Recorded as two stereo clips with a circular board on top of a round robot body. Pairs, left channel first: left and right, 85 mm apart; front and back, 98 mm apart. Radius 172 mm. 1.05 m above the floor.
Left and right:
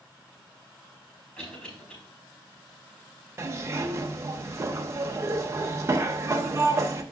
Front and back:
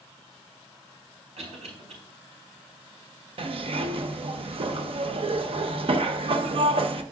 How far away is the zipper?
About 0.7 m.